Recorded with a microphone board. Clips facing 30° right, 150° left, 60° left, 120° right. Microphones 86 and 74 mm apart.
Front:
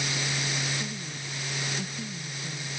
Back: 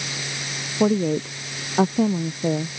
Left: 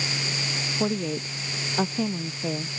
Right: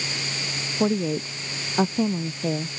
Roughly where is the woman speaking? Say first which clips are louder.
Back 18 dB, right 5 dB; behind.